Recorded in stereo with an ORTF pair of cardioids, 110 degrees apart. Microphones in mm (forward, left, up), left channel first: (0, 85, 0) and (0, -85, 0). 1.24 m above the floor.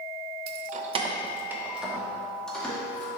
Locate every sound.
0.5 s keys jangling: 70° right, 0.6 m; by 3.1 s 10° left, 2.5 m